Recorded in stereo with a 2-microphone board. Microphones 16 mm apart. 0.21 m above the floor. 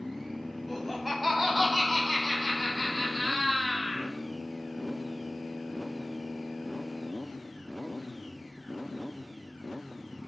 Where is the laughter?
10° left (ahead or behind), 1.0 m; by 4.1 s 40° right (ahead or behind), 2.5 m.